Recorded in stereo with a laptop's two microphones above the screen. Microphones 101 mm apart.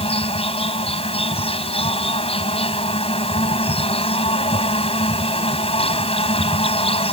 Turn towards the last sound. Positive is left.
turn(degrees=75)  # may be behind; listen again after turning